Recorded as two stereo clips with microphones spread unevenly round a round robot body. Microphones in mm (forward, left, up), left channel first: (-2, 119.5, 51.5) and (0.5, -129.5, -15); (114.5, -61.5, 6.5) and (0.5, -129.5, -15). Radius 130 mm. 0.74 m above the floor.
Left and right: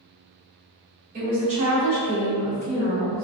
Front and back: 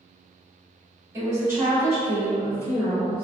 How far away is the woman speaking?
About 1.4 m.